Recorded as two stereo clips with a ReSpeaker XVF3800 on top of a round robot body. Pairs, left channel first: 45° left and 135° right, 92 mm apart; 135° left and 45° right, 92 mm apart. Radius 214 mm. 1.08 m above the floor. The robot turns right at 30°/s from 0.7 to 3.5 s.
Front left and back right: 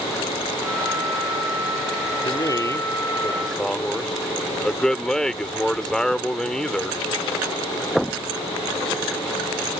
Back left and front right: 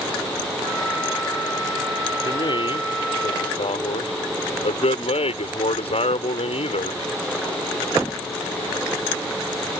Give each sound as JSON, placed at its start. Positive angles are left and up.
{"t": 2.2, "sound": "a man speaking", "azimuth_deg": 90}